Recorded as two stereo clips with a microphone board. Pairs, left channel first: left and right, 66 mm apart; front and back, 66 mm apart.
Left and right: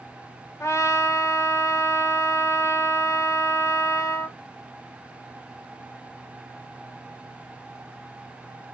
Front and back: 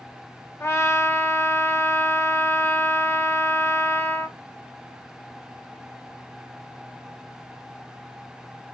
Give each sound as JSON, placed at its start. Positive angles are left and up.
{"t": 0.6, "sound": "a trumpet", "azimuth_deg": 45, "distance_m": 0.9}